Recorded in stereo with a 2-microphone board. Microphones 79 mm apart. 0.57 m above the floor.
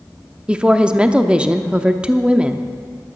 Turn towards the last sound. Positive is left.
turn(degrees=-15)  # may be behind; listen again after turning